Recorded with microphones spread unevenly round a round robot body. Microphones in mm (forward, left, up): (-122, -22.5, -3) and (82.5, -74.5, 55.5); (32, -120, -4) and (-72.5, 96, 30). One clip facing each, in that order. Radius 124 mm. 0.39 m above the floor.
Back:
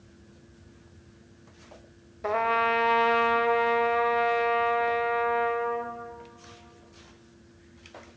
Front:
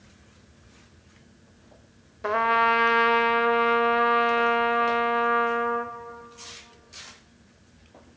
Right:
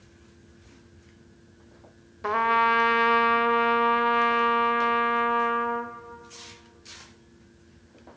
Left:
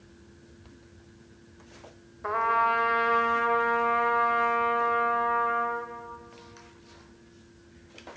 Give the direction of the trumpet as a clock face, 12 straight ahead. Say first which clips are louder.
Front 1 dB, right 4 dB; 3 o'clock.